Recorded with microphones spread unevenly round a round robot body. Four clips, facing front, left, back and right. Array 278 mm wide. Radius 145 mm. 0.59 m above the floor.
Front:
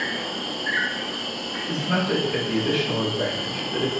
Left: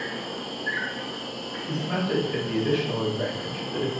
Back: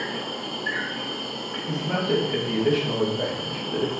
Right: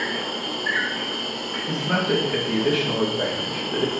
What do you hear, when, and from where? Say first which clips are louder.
0.0 s an insect: right 5 dB, front 1 dB; 115° right, 1.0 m
1.7 s a man speaking: right 4 dB, front 1 dB; 110° right, 0.9 m